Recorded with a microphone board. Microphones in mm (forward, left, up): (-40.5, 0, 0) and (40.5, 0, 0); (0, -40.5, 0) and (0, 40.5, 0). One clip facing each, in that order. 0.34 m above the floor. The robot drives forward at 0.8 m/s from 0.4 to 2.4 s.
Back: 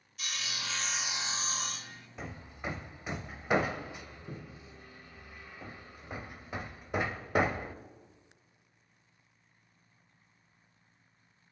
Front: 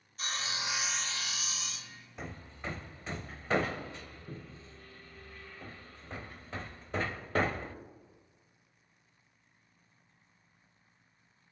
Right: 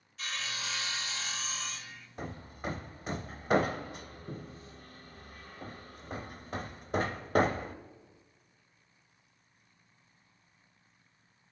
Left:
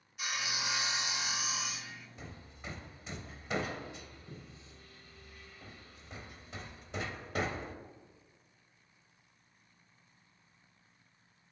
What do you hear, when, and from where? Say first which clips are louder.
0.2 s sawing: front 3 dB, left 1 dB; 25° left, 0.7 m; by 2.1 s 170° left, 1.1 m
2.2 s hammering: back 1 dB, right 14 dB; 90° right, 0.8 m; by 7.8 s 110° right, 0.8 m